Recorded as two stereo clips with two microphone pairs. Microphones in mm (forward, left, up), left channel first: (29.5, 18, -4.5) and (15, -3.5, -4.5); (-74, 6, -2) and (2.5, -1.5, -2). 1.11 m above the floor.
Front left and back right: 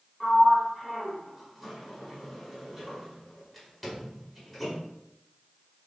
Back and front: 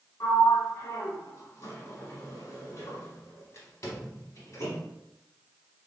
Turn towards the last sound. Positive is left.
turn(degrees=145)